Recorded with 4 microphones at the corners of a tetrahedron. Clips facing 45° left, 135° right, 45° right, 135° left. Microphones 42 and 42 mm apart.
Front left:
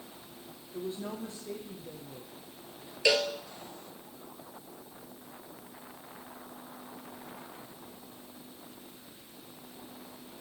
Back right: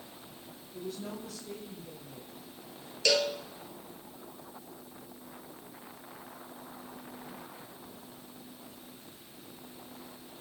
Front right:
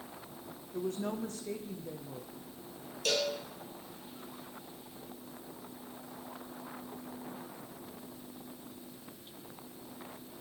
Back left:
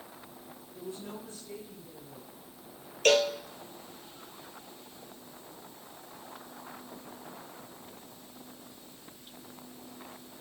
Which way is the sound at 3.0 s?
115° left.